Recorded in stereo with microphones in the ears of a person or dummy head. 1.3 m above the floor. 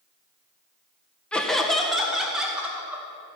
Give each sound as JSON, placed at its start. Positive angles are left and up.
{"t": 1.3, "sound": "laughter", "side_deg": 5, "distance_m": 1.2}